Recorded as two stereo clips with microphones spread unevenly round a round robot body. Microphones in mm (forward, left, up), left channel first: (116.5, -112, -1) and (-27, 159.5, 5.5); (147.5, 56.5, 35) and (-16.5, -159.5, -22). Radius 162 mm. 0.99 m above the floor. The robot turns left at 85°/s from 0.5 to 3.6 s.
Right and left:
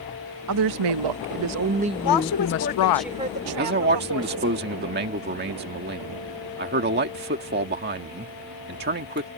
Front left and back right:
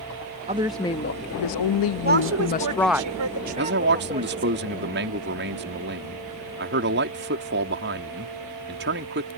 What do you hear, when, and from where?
0.5 s a woman speaking: 165° left; by 3.0 s 50° right
2.0 s a woman speaking: 70° right; by 4.6 s 160° left
3.6 s a man speaking: straight behind